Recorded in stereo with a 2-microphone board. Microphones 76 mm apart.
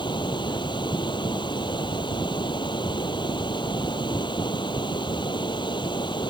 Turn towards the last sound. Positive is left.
turn(degrees=90)